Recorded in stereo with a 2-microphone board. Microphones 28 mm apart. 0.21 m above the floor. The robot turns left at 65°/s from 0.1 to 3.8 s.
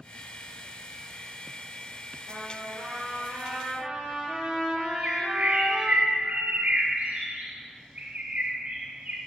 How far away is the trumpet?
About 5 m.